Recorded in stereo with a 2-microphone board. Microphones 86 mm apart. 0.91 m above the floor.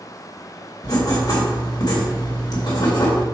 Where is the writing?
50° left (ahead or behind), 2.5 m.